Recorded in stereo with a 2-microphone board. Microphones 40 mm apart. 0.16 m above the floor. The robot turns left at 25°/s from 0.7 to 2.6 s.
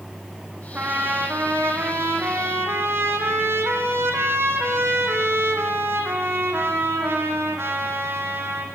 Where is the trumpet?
50° right, 5.5 m; by 8.7 s 95° right, 5.5 m.